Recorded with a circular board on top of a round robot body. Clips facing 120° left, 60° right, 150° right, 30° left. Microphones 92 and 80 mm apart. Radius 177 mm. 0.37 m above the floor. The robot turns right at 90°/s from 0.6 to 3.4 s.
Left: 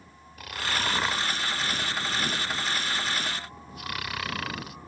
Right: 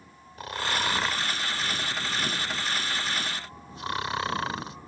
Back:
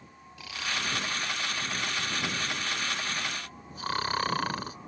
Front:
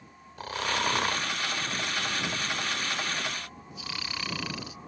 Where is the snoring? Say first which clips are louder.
Right 2 dB, front 5 dB; 5° right; by 4.8 s 115° right.